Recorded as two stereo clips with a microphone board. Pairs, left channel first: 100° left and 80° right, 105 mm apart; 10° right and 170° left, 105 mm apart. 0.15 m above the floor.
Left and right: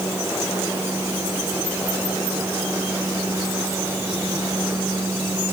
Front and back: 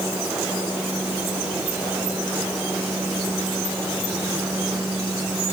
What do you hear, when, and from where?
Only background noise.